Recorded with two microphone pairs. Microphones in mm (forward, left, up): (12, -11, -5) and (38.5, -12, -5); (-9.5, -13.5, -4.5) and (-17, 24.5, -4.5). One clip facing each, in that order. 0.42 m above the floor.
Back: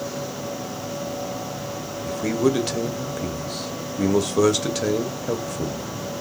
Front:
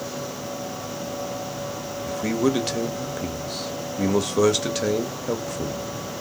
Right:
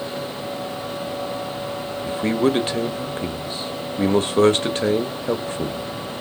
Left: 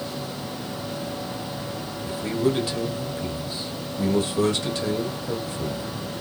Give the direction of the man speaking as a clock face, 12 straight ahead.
3 o'clock.